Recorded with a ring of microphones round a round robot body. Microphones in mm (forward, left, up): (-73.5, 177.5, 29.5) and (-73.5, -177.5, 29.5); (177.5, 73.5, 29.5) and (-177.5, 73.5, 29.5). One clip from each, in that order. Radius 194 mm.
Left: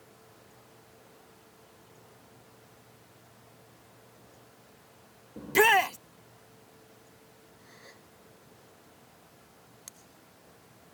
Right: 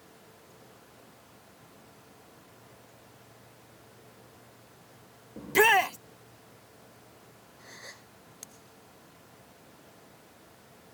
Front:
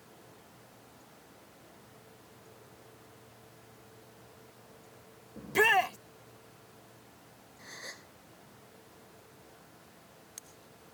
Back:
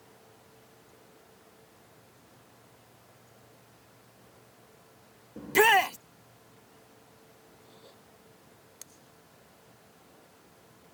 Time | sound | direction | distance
5.4 | a shout | 170° left | ?
7.6 | a gasp | 20° right | ?